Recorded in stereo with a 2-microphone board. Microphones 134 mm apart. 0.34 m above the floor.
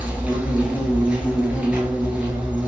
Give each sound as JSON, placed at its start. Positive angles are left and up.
{"t": 0.0, "sound": "an insect", "side_deg": -10, "distance_m": 1.2}